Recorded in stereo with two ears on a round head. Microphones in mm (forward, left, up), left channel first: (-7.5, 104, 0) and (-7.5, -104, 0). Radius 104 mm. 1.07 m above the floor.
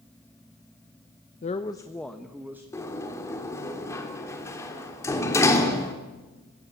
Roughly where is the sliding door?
Centre.